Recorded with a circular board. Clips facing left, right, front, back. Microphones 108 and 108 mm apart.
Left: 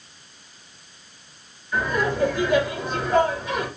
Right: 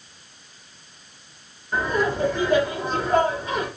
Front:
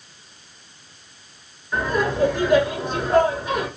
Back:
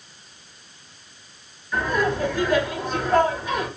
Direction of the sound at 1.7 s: 55° right.